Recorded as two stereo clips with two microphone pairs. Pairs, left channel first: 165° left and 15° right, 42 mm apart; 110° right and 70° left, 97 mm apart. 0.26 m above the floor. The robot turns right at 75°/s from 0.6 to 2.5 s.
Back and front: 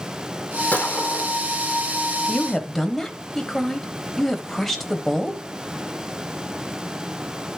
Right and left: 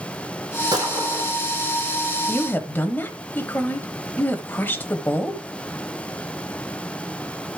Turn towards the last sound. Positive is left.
turn(degrees=-120)